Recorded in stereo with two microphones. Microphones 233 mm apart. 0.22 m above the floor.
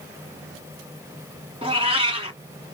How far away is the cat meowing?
About 1.0 m.